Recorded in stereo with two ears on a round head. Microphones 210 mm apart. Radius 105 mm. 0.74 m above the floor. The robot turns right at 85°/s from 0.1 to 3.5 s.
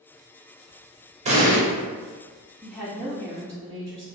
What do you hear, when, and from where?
1.2 s an explosion: 30° right (ahead or behind), 0.7 m; by 1.6 s 5° right (ahead or behind), 0.7 m
2.6 s a woman speaking: 155° left, 1.1 m; by 4.1 s 130° right, 1.1 m